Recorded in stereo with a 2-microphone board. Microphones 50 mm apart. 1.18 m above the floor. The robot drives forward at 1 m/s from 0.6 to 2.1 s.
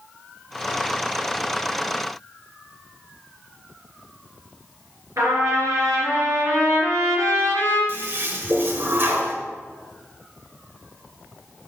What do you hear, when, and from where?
5.2 s a trumpet: 65° right (ahead or behind), 3 m
7.9 s a toilet flushing: 45° right (ahead or behind), 1.2 m